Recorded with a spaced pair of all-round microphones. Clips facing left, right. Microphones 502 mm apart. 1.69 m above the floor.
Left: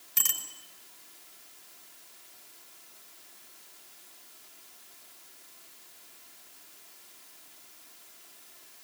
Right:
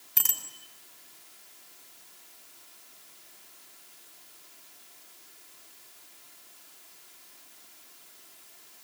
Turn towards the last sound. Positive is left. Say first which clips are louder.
# right 1 dB
turn(degrees=-70)  # may be behind; listen again after turning